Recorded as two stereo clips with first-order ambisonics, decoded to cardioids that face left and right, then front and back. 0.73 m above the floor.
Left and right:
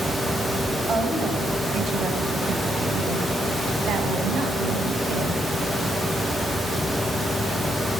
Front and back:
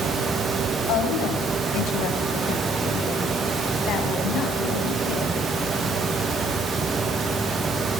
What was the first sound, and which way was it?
A woman speaking, 25° right.